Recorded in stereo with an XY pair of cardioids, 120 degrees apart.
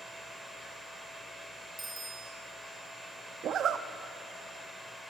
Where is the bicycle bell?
15° right, 3 m.